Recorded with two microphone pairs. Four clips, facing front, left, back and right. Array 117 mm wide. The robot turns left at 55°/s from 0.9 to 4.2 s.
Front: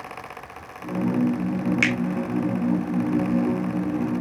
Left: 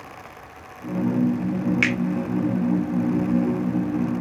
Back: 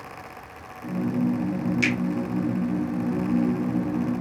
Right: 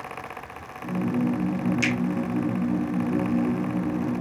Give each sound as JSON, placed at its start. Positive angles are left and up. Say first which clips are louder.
{"t": 1.8, "sound": "a finger snap", "louder": "left 2 dB, front 1 dB", "azimuth_deg": 40, "distance_m": 2.5}